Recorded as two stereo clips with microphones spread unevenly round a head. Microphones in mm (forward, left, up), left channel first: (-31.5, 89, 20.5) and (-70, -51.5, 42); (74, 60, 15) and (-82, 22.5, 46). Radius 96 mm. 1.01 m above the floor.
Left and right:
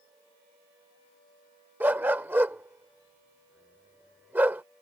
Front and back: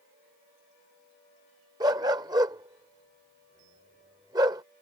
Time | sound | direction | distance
1.8 | a dog barking | 155° right | ?